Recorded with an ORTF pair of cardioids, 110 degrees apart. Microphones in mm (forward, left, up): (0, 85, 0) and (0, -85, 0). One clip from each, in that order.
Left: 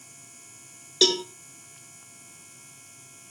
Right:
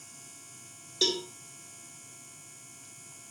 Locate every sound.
1.0 s a cowbell: 40° left, 1.6 m